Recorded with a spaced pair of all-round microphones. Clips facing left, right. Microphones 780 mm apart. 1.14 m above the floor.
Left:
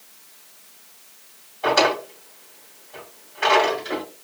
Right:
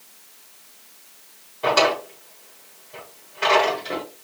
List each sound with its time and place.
1.6 s a drawer: 55° right (ahead or behind), 1.7 m